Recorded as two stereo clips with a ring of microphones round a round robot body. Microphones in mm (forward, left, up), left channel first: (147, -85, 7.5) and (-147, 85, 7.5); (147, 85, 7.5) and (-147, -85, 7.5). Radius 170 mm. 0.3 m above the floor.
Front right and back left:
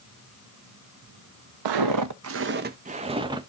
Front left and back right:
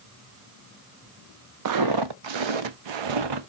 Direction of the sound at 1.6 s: 170° left.